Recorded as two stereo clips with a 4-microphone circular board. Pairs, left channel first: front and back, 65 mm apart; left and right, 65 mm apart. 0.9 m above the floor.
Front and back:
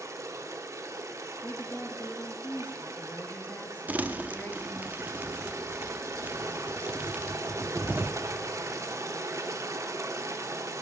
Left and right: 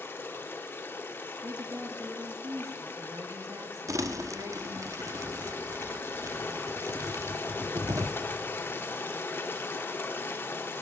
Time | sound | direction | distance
0.0 | running water | 145° left | 0.9 m
1.4 | a woman speaking | 60° right | 1.2 m
3.9 | crumpling | 115° right | 0.6 m